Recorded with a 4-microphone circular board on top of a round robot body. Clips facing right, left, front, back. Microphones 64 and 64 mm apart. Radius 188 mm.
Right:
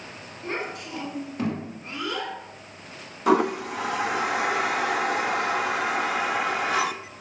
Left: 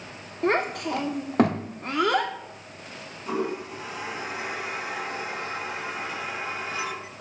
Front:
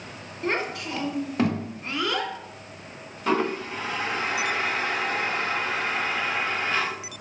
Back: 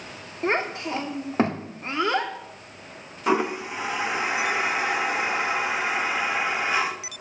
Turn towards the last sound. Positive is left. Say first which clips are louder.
# right 8 dB, back 1 dB
turn(degrees=-100)